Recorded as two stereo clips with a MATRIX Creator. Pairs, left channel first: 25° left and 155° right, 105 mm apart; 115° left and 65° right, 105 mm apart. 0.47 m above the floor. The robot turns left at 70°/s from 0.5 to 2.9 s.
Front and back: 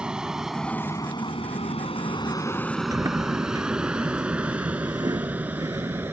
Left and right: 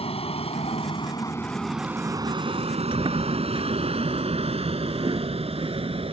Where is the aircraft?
120° left; by 6.1 s 85° right.